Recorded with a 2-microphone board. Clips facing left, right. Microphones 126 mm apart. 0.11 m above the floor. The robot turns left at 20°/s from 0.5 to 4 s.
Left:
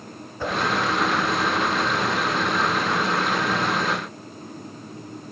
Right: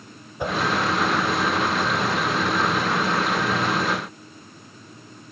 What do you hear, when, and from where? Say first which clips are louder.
0.4 s a whoosh: right 1 dB; 15° right (ahead or behind), 1.5 m